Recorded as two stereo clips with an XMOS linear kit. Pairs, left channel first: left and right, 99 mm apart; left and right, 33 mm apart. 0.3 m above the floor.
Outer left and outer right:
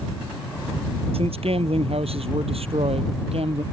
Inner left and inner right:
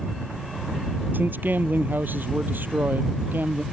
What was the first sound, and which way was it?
A man speaking, 80° right.